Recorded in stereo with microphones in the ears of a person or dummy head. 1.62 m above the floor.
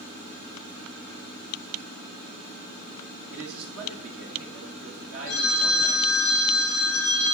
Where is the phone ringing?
10° left (ahead or behind), 3 m.